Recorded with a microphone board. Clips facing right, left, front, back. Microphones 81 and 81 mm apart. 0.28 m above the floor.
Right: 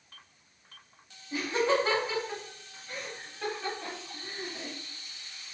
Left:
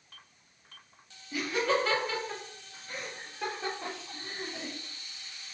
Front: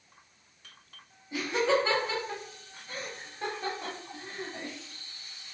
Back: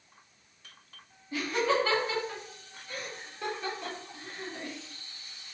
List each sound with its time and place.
1.3 s laughter: 60° right, 1.5 m; by 4.7 s 40° left, 2 m